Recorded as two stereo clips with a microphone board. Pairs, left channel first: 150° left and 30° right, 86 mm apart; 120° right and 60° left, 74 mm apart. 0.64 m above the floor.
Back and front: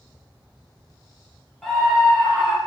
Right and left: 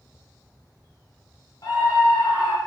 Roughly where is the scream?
Behind right.